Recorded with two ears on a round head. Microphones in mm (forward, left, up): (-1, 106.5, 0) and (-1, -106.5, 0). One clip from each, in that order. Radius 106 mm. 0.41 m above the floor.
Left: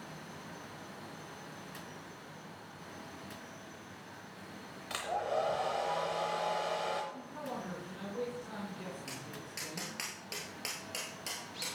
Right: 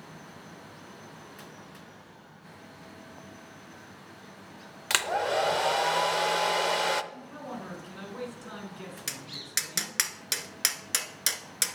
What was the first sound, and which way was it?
A hair dryer, 60° right (ahead or behind).